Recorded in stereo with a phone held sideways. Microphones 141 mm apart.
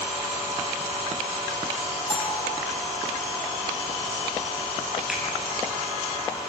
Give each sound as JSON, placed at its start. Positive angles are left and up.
{"t": 2.1, "sound": "a bell", "side_deg": 35, "distance_m": 3.0}
{"t": 5.1, "sound": "a finger snap", "side_deg": -5, "distance_m": 7.0}